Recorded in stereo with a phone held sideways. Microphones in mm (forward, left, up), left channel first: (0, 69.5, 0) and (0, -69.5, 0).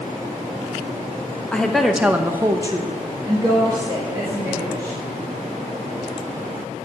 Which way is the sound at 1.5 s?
10° left (ahead or behind).